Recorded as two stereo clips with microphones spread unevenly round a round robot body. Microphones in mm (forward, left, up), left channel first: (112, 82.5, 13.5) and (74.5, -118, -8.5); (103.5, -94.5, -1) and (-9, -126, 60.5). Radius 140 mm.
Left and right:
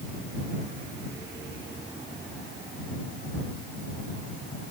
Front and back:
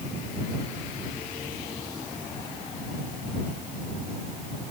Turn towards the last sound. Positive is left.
No sound to turn to.